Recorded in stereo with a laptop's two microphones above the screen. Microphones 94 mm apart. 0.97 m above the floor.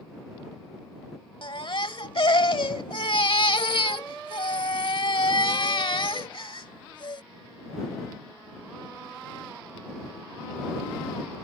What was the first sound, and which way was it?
A baby crying, 60° left (ahead or behind).